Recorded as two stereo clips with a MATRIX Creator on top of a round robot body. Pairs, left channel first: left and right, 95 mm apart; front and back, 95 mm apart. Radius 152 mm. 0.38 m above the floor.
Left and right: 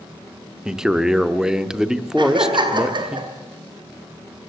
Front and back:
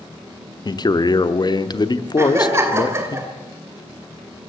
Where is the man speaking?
10° right, 1.0 m.